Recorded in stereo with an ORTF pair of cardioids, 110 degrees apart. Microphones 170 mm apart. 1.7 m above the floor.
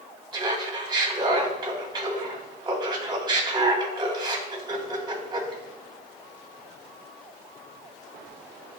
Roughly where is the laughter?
Ahead right.